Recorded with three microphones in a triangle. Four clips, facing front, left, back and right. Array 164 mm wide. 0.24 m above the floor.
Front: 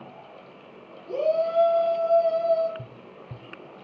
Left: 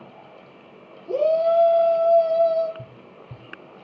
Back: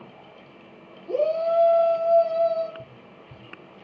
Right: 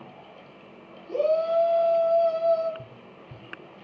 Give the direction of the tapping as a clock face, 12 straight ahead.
11 o'clock.